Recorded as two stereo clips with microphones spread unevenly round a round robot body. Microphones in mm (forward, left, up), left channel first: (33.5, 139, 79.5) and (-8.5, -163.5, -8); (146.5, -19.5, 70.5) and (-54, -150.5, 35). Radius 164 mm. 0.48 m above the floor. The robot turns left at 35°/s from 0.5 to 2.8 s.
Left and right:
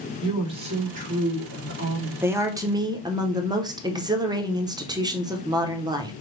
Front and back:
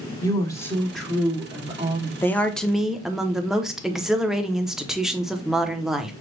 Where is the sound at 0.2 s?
45° right, 1.7 m; by 2.1 s 105° right, 1.7 m.